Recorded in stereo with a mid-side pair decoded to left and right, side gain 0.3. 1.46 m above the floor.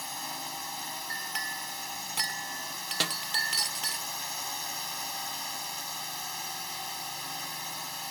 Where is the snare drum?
30° right.